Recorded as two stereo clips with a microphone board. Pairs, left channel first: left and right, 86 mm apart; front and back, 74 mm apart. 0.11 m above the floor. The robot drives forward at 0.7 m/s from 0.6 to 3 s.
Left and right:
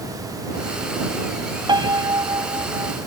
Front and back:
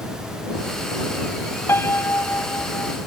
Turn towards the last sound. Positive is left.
turn(degrees=-60)